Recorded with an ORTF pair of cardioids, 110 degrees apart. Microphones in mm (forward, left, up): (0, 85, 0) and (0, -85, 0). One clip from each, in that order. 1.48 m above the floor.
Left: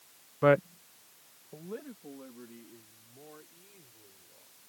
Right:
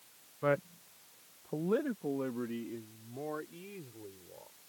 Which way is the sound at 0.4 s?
45° left.